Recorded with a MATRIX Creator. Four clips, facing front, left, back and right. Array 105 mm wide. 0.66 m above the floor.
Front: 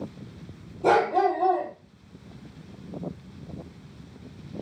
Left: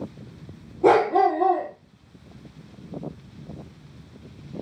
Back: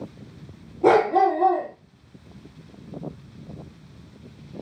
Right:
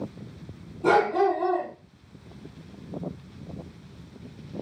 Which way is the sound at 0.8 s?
140° left.